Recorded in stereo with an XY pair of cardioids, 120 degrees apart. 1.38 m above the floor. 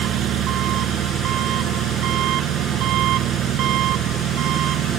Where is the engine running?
65° right.